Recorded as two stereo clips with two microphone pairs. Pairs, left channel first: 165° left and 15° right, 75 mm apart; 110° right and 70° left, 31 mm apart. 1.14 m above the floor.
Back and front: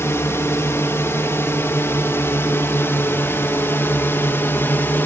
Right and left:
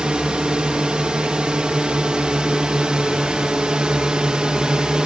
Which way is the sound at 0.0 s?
120° left.